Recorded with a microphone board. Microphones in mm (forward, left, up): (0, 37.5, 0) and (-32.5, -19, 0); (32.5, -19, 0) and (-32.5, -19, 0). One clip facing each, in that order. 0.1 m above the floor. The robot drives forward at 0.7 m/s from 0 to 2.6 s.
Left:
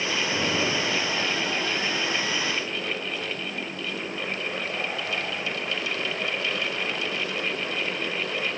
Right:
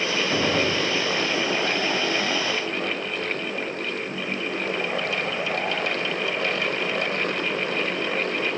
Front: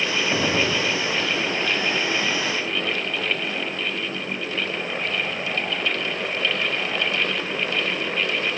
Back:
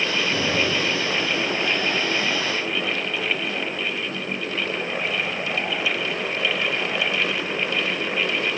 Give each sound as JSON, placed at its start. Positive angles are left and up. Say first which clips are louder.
{"t": 0.3, "sound": "a gunshot", "louder": "right 4 dB, front 2 dB", "azimuth_deg": -65, "distance_m": 4.5}